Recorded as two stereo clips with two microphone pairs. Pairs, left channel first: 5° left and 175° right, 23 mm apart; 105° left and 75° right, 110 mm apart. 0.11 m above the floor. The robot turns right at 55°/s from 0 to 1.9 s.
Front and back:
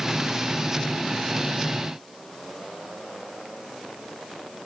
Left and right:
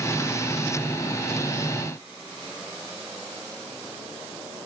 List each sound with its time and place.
Only background noise.